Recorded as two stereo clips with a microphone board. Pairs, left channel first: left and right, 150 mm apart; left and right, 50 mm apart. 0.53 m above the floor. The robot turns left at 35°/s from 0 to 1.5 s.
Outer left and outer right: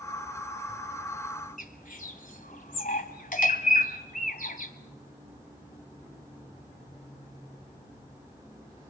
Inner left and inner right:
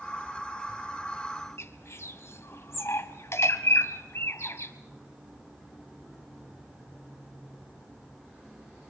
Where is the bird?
65° left (ahead or behind), 1.7 m.